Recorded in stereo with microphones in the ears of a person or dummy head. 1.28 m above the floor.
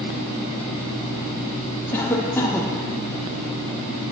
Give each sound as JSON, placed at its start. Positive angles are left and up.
{"t": 1.9, "sound": "a cough", "side_deg": 10, "distance_m": 0.6}